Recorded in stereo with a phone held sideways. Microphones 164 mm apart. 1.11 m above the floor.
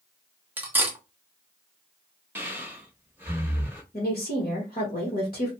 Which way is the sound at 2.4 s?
10° right (ahead or behind).